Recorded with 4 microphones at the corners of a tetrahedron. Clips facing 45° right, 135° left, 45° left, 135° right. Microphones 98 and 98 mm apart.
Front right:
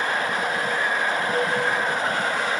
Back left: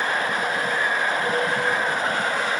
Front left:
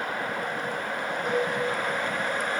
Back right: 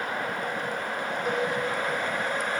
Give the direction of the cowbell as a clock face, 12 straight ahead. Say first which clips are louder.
Even, front left 1 dB; 7 o'clock.